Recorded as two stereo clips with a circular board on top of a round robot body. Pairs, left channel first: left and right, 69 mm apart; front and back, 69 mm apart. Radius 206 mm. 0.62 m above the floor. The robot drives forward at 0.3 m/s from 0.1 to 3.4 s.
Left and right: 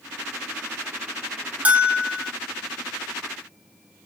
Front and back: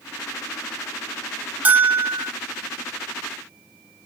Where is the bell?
140° right, 0.9 m; by 2.3 s 155° right, 1.0 m.